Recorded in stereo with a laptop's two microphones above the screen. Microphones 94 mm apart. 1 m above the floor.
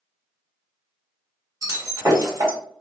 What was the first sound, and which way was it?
Breaking glass, 40° right (ahead or behind).